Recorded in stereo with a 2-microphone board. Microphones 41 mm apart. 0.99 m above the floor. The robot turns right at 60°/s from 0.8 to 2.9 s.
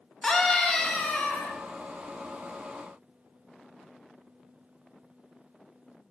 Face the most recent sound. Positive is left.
turn(degrees=140)